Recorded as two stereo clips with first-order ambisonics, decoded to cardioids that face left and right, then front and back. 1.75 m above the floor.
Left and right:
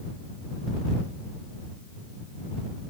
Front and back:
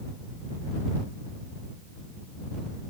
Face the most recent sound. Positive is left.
No sound to turn to.